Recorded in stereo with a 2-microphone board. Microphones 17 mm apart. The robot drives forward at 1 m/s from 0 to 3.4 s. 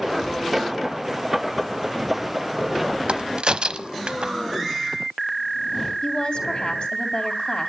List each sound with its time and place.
3.1 s a crack: 85° right, 0.9 m; by 4.3 s 75° right (ahead or behind), 0.9 m
6.0 s a woman speaking: 70° left (ahead or behind), 3 m